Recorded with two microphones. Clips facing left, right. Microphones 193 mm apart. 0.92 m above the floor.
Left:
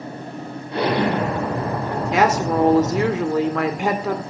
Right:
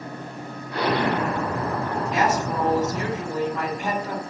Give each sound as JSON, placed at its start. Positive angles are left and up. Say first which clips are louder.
{"t": 0.7, "sound": "an explosion", "louder": "left 3 dB", "side_deg": 25, "distance_m": 4.5}
{"t": 2.1, "sound": "a woman speaking", "louder": "left 6 dB", "side_deg": 75, "distance_m": 2.5}